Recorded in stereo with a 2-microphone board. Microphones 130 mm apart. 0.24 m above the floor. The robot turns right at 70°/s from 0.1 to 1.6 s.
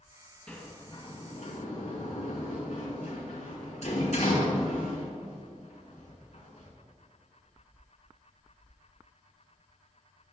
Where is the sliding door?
10° left (ahead or behind), 2.5 m; by 6.7 s 65° left (ahead or behind), 2.5 m.